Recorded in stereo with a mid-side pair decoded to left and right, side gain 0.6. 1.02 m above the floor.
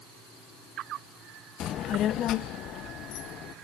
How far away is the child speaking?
About 0.5 m.